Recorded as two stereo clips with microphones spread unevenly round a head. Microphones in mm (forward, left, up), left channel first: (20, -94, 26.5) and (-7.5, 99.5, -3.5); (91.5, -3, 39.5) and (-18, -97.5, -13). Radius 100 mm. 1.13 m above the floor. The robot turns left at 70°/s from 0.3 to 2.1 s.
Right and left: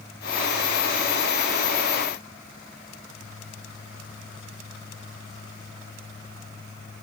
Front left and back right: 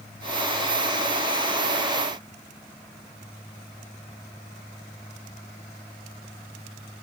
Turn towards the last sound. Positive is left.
No sound to turn to.